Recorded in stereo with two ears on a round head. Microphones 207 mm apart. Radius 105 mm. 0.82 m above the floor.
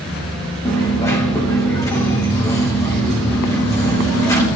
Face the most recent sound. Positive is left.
turn(degrees=15)  # may be behind; listen again after turning